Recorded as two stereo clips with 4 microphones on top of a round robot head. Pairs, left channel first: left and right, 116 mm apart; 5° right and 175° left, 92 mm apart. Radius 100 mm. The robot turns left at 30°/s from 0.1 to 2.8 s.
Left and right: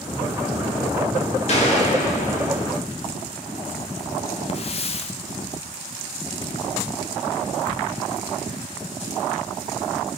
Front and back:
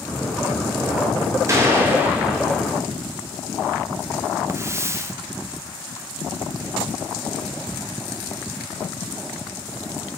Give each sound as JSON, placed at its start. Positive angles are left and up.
{"t": 1.5, "sound": "a gunshot", "azimuth_deg": 115, "distance_m": 3.0}
{"t": 4.5, "sound": "a hiss", "azimuth_deg": 115, "distance_m": 0.9}